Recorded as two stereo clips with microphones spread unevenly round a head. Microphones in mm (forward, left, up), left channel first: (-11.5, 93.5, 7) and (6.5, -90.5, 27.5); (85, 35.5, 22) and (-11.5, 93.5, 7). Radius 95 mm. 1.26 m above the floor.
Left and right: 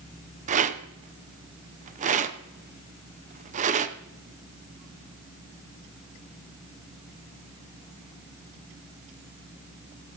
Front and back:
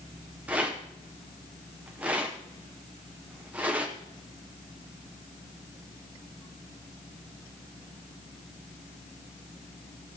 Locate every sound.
0.5 s a rattle: 135° right, 0.6 m